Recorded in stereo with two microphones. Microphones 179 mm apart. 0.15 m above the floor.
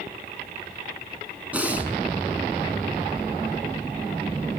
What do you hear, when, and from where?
1.5 s breathing: 10° right (ahead or behind), 0.8 m